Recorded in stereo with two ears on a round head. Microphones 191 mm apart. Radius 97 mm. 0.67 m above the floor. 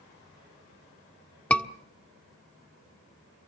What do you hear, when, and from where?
1.5 s a scream: 5° left (ahead or behind), 1.5 m